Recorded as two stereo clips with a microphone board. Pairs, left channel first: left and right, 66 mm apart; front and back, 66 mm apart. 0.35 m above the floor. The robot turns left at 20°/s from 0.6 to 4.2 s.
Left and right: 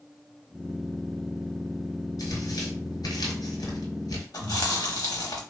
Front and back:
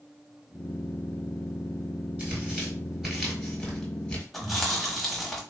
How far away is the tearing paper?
About 1.2 m.